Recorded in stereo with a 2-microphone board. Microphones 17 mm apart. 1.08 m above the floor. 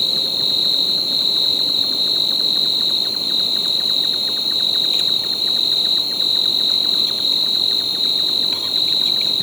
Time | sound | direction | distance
0.0 | an insect | 10° right (ahead or behind) | ?